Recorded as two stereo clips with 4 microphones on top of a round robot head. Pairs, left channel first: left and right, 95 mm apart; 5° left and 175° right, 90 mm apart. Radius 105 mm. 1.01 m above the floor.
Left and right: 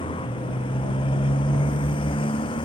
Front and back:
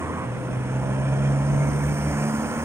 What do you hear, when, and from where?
0.0 s a motorcycle: 125° left